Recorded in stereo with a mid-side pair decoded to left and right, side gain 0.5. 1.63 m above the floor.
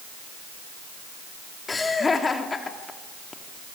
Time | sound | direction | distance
1.7 | laughter | 25° left | 3.5 m